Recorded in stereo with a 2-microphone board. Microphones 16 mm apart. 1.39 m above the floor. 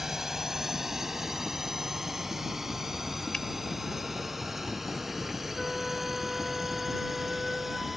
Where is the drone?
35° right (ahead or behind); by 8.0 s 20° right (ahead or behind).